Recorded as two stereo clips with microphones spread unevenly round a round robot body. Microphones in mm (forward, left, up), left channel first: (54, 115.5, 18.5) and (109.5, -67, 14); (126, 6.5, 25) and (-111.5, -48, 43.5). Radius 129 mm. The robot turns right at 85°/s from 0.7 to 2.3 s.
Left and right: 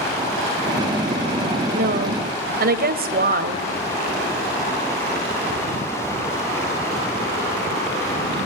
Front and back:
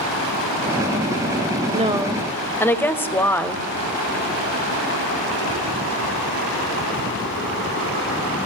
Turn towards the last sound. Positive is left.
turn(degrees=-65)